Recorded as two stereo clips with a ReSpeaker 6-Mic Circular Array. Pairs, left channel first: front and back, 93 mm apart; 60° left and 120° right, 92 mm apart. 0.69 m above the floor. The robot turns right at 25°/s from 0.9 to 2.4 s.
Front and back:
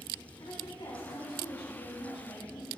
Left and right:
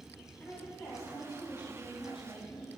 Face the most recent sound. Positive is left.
turn(degrees=40)